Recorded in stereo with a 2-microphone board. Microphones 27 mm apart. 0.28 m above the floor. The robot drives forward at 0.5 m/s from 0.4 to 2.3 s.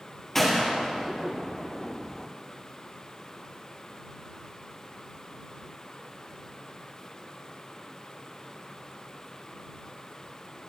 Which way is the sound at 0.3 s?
10° left (ahead or behind).